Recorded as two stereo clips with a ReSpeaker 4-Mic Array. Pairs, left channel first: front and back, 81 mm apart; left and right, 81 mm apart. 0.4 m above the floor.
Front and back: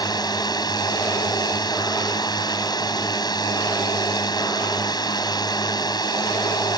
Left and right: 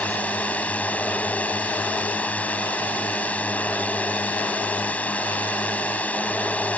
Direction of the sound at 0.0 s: 20° left.